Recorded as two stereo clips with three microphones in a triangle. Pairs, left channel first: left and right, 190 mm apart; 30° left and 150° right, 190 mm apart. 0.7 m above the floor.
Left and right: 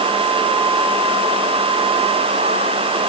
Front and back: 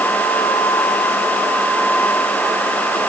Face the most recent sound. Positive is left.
No sound to turn to.